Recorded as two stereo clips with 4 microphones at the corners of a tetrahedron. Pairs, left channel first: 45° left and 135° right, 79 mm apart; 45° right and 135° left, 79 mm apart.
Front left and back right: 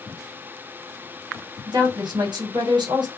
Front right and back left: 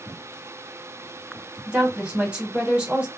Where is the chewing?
No chewing in this recording.